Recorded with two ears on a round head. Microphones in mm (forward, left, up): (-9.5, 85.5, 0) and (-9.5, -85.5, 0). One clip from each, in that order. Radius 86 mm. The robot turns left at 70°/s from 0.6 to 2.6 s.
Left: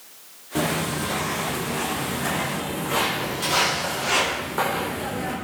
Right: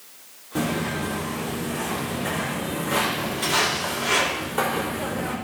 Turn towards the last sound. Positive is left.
turn(degrees=-10)  # may be behind; listen again after turning